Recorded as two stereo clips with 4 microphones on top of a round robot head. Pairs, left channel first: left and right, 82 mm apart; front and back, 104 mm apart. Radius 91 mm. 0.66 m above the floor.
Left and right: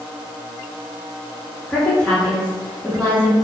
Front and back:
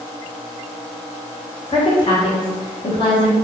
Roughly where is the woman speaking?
Ahead left.